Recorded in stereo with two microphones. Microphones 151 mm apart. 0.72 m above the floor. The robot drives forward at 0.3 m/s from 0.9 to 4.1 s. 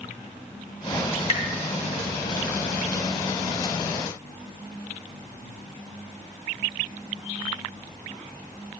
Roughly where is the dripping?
Left.